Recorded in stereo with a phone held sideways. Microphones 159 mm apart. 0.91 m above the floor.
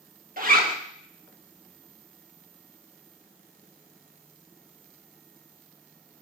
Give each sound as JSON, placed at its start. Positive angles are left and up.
{"t": 0.4, "sound": "a zipper", "side_deg": -65, "distance_m": 1.3}